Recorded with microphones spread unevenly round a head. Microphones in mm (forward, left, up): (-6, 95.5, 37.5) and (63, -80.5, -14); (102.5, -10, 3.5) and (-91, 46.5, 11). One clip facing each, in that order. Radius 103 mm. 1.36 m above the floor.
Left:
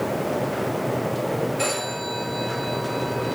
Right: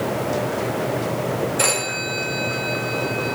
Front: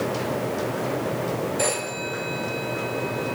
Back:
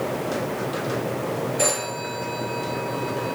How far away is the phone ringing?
About 1.7 m.